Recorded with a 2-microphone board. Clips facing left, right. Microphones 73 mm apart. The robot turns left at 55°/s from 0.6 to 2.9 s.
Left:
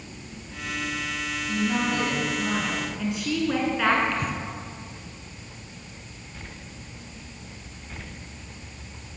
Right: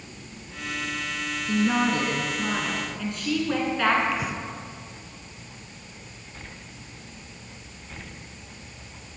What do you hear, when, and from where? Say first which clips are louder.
1.5 s a woman speaking: right 3 dB; 105° right, 2.5 m; by 4.0 s 175° left, 2.5 m
4.1 s breathing: even; 10° right (ahead or behind), 1.1 m